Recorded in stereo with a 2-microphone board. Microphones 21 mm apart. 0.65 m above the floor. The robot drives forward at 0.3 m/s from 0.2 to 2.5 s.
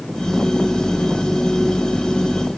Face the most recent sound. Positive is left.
No sound to turn to.